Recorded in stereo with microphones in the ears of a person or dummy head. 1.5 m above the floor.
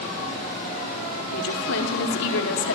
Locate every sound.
1.3 s a woman speaking: 75° left (ahead or behind), 5.5 m; by 2.8 s 80° left, 4 m